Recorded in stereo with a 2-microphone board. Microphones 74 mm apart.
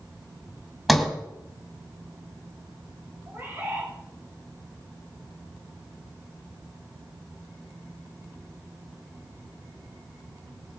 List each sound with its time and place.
0.9 s a sliding door: centre (ahead or behind), 2 m
3.3 s a bird: 35° right (ahead or behind), 5 m